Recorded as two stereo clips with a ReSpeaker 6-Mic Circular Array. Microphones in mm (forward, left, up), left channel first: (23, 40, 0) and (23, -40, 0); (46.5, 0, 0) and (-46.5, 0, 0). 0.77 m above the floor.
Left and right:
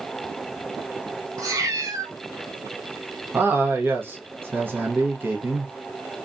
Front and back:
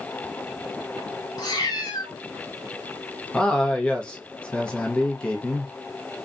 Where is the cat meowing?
45° right, 0.9 m.